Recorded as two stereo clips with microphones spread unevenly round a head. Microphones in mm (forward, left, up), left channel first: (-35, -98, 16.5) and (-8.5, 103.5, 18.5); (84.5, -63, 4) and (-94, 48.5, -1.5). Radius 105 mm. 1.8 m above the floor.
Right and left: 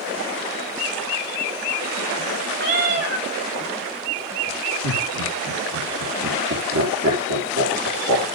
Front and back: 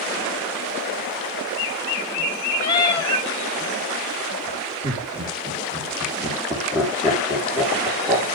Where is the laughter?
70° left, 5 m.